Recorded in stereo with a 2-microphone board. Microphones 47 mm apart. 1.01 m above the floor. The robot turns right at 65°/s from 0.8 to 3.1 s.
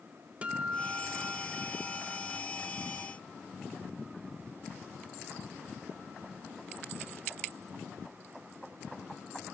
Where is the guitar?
25° right (ahead or behind), 0.6 m; by 2.4 s centre (ahead or behind), 0.6 m.